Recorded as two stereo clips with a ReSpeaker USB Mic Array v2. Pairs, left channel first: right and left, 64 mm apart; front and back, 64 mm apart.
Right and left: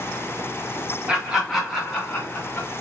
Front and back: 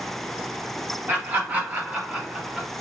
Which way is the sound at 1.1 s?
150° left.